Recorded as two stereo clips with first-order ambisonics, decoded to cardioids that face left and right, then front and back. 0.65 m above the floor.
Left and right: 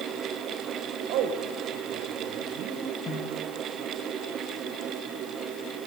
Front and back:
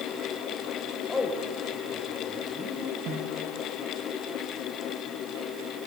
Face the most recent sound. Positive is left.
turn(degrees=150)